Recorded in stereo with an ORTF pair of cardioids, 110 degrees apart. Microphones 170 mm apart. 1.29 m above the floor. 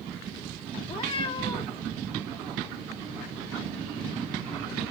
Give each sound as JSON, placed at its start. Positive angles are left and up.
{"t": 0.8, "sound": "a cat meowing", "azimuth_deg": 35, "distance_m": 1.5}